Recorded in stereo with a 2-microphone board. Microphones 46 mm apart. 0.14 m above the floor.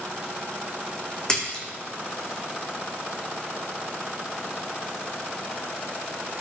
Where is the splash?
20° left (ahead or behind), 3 m.